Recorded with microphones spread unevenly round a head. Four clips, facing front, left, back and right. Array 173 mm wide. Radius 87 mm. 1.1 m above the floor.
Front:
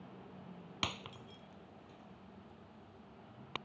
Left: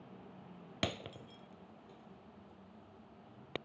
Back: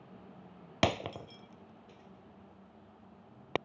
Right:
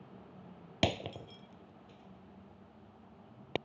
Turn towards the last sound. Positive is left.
turn(degrees=-135)